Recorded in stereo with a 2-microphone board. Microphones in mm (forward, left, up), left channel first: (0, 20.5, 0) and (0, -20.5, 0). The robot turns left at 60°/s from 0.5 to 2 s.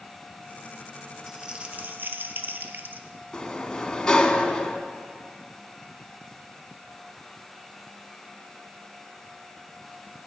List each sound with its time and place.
1.3 s crumpling: 10° right, 1.0 m; by 3.1 s 55° right, 1.0 m
3.3 s a sliding door: 15° left (ahead or behind), 1.0 m